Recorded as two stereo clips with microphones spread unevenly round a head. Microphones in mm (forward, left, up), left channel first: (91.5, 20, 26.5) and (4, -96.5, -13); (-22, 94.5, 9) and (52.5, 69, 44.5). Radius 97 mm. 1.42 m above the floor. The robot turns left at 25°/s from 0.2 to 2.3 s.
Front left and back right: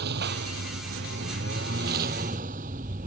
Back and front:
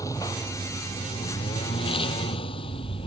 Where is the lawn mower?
130° right; by 3.1 s straight behind.